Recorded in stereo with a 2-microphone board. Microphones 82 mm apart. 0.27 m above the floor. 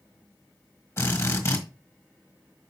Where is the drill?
30° left (ahead or behind), 1.4 m.